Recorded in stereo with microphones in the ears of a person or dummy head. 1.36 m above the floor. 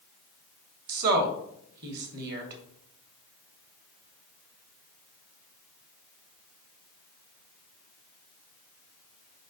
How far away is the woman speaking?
About 2.0 m.